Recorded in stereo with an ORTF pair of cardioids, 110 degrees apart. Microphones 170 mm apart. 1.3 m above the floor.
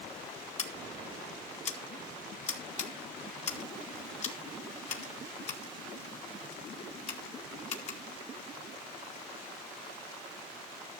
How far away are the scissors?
About 2.0 m.